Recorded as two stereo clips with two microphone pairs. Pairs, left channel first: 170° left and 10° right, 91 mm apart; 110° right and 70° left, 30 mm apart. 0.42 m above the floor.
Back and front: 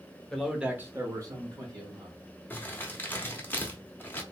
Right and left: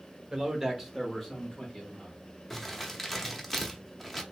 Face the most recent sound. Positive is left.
turn(degrees=180)